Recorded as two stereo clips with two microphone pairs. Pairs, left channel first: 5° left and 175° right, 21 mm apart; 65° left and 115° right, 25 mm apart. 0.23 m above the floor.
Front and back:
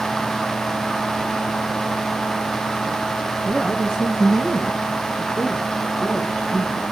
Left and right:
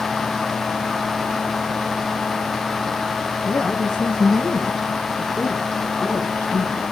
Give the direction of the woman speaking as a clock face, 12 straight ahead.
10 o'clock.